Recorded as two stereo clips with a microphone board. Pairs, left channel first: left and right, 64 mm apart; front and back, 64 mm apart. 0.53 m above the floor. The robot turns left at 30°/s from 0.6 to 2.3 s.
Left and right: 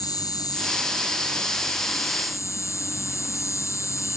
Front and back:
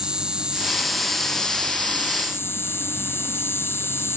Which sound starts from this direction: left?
An insect, at 0.0 s.